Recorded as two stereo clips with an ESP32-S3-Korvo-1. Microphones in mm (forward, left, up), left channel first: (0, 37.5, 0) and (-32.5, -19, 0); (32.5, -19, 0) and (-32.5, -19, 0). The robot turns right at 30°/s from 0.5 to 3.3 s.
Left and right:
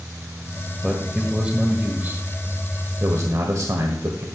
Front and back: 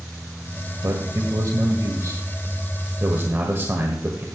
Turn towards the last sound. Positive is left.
turn(degrees=-135)